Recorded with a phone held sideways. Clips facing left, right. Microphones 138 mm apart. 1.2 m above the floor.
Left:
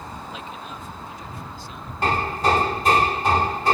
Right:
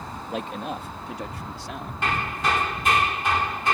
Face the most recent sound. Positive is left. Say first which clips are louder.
# left 5 dB
turn(degrees=40)  # may be behind; listen again after turning